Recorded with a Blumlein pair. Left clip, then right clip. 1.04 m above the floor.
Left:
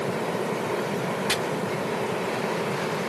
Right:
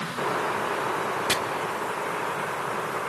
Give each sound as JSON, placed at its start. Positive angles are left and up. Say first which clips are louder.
{"t": 1.3, "sound": "chopping", "louder": "even", "azimuth_deg": -5, "distance_m": 1.6}